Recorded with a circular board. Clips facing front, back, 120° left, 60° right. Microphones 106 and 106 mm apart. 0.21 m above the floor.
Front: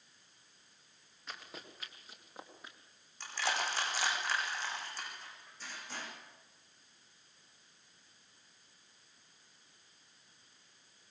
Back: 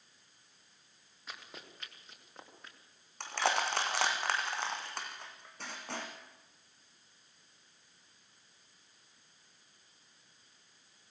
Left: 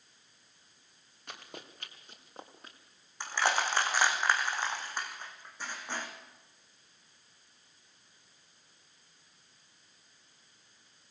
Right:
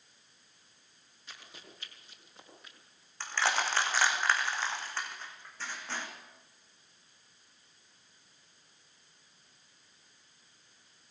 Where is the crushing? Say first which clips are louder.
Back 4 dB, left 1 dB; 165° right, 4 m.